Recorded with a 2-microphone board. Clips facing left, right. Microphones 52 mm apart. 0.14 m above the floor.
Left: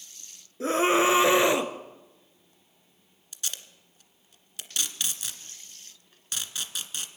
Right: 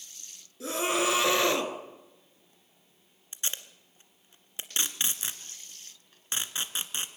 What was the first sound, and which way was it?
A scream, 40° left (ahead or behind).